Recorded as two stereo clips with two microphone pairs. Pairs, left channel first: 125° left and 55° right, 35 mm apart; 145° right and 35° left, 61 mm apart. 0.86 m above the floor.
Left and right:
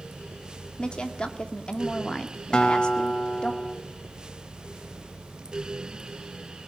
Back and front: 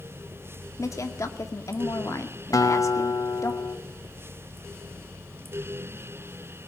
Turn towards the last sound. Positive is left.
turn(degrees=-170)